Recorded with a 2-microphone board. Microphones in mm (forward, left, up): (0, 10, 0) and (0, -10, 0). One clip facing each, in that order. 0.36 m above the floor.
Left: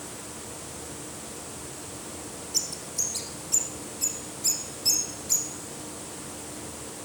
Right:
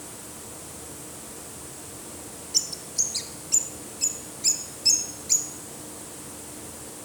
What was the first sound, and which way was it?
A bird, 20° right (ahead or behind).